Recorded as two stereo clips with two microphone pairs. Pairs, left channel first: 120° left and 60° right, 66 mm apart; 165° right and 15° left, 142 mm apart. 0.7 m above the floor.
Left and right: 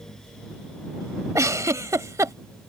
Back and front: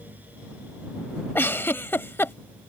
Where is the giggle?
95° right.